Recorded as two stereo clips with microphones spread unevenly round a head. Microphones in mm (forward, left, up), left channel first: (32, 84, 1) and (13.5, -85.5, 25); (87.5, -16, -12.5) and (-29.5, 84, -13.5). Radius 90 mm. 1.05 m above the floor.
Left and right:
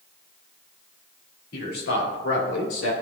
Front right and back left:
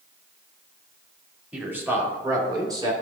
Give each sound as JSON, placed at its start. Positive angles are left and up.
{"t": 1.5, "sound": "a man speaking", "azimuth_deg": 60, "distance_m": 2.0}